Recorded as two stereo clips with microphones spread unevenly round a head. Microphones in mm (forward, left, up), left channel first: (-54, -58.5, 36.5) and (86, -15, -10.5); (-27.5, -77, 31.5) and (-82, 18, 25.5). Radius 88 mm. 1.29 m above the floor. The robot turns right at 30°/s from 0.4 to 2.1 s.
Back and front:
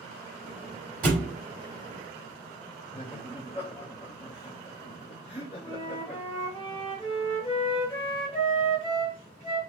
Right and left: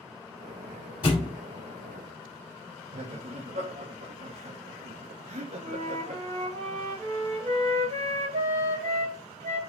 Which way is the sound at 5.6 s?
140° left.